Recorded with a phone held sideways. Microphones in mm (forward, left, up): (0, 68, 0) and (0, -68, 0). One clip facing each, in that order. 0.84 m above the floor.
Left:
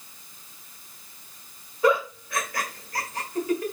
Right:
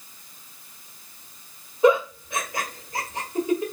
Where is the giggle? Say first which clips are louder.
Right 4 dB; 25° right (ahead or behind), 1.4 m.